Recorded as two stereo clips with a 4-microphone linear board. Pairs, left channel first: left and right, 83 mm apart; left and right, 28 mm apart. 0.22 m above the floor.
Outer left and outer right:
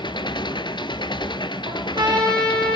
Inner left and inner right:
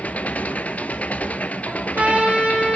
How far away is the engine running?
About 0.9 m.